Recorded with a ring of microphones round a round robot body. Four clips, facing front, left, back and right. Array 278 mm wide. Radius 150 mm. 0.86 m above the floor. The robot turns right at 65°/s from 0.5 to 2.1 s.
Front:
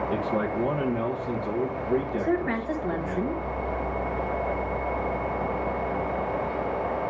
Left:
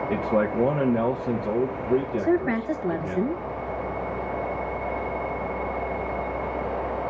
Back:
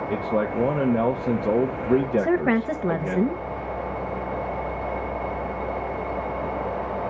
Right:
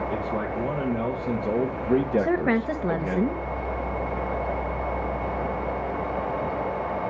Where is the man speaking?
120° left, 1.4 m; by 3.2 s 135° right, 1.4 m.